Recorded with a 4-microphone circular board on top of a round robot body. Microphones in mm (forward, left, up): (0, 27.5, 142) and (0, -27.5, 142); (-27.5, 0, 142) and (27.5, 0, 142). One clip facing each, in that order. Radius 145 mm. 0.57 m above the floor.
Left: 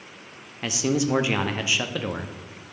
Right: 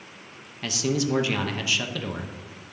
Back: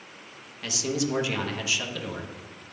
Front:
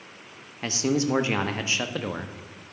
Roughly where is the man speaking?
Ahead left.